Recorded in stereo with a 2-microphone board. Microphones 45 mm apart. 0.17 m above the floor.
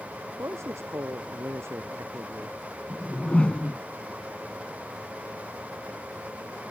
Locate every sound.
0.4 s a man speaking: 75° right (ahead or behind)
2.9 s a whoosh: 25° left (ahead or behind)